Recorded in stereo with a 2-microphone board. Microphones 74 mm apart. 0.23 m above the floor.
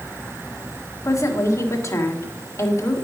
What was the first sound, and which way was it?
A woman speaking, 45° left (ahead or behind).